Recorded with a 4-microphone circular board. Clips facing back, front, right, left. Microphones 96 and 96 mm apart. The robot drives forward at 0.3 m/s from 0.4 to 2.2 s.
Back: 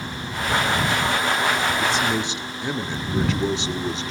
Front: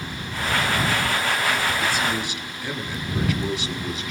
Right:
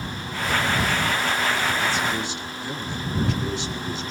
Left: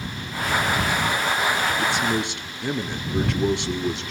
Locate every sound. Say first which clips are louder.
1.8 s a man speaking: back 2 dB, left 2 dB; 115° left, 2 m